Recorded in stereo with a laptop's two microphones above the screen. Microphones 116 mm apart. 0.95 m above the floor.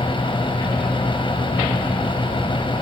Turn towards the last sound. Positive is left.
turn(degrees=45)  # may be behind; listen again after turning